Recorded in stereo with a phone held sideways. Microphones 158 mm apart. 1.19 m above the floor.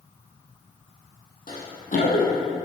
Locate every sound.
1.5 s running footsteps: 65° left (ahead or behind), 2.5 m; by 2.5 s 60° left (ahead or behind), 2 m